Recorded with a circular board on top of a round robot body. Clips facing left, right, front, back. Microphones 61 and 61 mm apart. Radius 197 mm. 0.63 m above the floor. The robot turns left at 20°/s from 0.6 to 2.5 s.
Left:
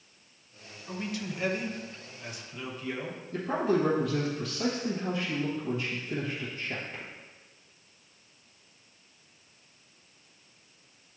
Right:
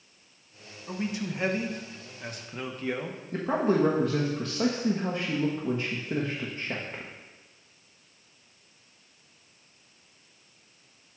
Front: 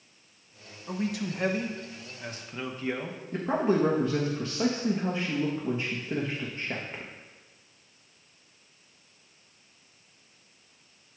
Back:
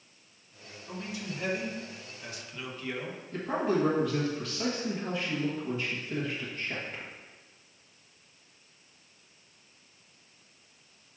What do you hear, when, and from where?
0.9 s a man speaking: 20° right, 1.2 m; by 3.2 s 55° right, 1.2 m
3.3 s a man speaking: 55° right, 1.2 m